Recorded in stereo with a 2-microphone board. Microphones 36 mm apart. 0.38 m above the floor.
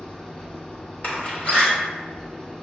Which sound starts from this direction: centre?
An engine running, at 0.0 s.